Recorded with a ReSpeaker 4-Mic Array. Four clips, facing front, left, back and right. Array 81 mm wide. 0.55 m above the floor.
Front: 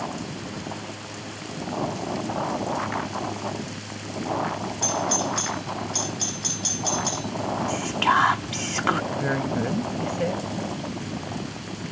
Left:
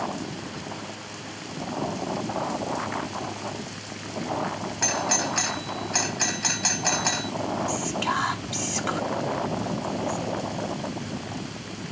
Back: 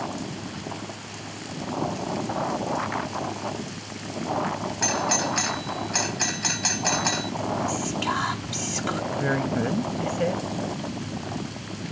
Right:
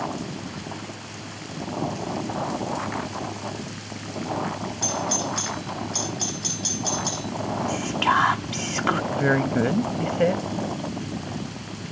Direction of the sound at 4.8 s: 130° left.